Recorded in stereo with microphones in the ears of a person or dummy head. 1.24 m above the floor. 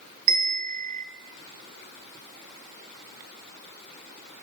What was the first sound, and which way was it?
A bell, 40° right (ahead or behind).